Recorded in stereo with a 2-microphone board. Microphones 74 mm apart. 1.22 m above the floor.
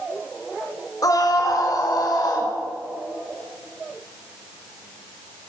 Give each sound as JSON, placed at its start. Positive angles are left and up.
{"t": 1.0, "sound": "a scream", "side_deg": 55, "distance_m": 3.0}